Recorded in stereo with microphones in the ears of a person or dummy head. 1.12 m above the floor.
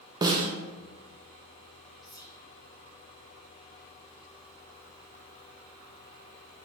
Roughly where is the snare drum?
Centre.